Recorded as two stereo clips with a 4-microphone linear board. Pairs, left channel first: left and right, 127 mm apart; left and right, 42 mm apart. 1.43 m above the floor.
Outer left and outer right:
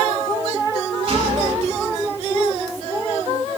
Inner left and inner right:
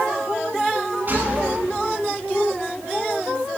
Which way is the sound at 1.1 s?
45° right (ahead or behind).